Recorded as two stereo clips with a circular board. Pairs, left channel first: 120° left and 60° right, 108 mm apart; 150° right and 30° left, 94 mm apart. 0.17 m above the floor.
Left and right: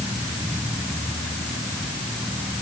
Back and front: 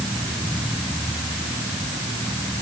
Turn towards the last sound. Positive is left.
No sound to turn to.